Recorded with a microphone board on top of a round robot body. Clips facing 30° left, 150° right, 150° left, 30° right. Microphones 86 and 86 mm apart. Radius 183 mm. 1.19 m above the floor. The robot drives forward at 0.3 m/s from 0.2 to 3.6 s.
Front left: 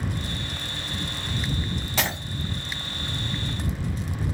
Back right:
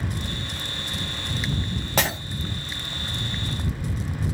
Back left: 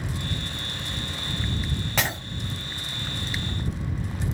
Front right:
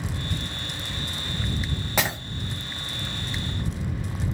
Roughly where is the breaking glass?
Right.